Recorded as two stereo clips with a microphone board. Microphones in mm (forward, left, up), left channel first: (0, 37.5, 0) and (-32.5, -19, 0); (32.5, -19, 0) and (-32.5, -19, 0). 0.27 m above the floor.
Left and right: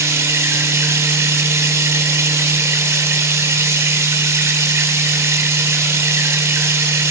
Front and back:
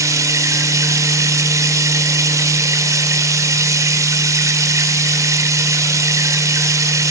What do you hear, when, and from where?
0.0 s running water: 160° right, 1.2 m